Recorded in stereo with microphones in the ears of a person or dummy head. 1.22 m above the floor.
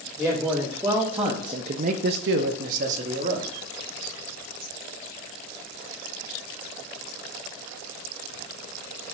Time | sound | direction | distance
0.2 | a man speaking | 5° left (ahead or behind) | 1.5 m